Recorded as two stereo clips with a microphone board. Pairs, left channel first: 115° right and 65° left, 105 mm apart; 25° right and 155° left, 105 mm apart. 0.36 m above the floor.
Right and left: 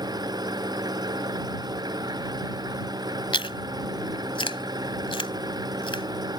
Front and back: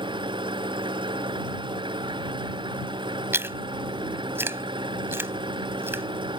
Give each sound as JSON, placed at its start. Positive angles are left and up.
{"t": 0.0, "sound": "an engine running", "azimuth_deg": 120}
{"t": 3.3, "sound": "chewing", "azimuth_deg": -140}